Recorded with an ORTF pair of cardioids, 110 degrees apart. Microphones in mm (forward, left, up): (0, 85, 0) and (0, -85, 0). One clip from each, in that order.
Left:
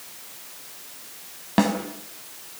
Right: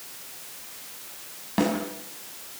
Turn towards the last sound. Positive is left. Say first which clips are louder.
# left 3 dB
turn(degrees=40)